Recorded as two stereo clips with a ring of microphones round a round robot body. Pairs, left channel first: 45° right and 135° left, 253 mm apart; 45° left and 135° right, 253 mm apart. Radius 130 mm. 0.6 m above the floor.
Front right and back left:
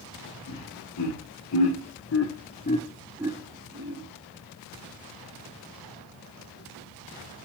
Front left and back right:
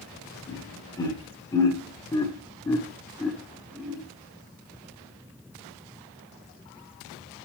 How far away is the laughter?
About 1.8 m.